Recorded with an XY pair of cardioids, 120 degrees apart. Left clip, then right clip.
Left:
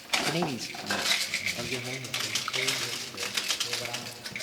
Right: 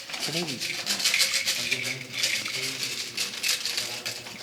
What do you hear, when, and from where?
0.3 s a man speaking: 5° left, 0.9 m; by 4.3 s 45° left, 6 m